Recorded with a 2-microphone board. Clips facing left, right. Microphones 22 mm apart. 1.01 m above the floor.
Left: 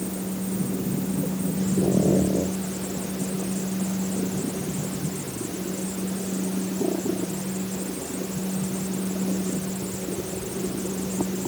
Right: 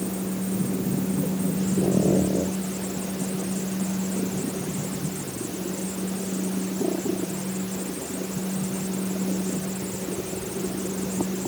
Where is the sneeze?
No sneeze in this recording.